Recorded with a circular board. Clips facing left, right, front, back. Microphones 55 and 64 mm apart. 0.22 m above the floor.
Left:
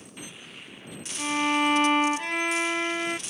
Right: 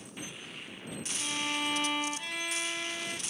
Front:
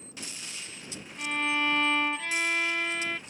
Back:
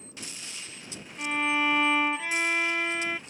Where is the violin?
105° left.